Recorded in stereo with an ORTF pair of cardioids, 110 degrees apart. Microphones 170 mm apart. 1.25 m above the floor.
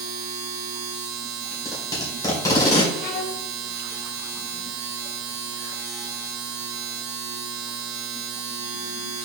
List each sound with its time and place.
0.0 s a machine running: 70° right, 1.0 m
1.5 s tape being pulled: 20° left, 2 m
3.0 s a violin: 65° left, 0.9 m